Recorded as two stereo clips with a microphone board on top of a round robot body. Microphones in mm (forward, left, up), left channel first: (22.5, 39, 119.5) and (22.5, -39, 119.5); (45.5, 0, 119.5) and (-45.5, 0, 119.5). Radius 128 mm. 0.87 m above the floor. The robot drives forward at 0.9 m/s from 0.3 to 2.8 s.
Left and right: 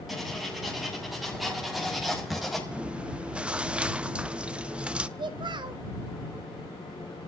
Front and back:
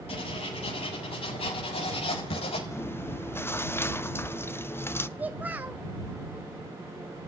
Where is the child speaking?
110° right, 0.9 m.